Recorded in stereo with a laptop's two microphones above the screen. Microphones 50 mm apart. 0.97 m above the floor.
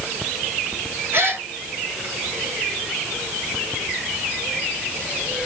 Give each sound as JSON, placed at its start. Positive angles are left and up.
{"t": 1.1, "sound": "a gasp", "side_deg": -50, "distance_m": 1.1}